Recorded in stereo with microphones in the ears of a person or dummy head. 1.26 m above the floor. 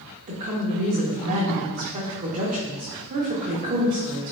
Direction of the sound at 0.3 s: 40° right (ahead or behind).